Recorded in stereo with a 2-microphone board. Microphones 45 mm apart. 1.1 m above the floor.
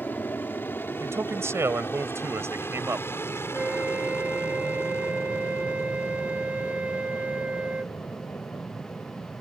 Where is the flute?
30° right (ahead or behind).